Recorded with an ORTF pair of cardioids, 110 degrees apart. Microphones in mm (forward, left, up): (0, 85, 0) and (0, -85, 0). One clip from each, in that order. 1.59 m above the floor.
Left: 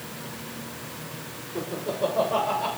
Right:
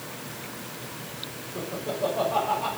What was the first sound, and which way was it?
Laughter, 40° left.